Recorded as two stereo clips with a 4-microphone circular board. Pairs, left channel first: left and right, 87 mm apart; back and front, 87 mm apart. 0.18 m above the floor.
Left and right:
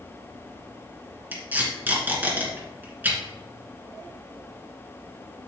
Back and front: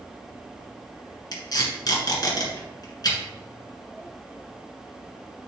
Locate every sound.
1.3 s tape being pulled: 155° right, 2.5 m